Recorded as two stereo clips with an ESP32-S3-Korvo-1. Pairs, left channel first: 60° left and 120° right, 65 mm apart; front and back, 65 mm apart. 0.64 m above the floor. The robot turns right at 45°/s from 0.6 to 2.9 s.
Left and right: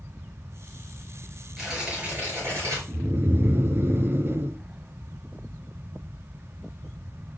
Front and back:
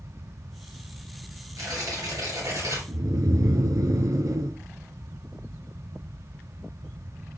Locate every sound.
1.6 s tearing paper: 150° left, 5 m; by 2.8 s 155° right, 5 m
2.9 s snoring: 165° right, 0.7 m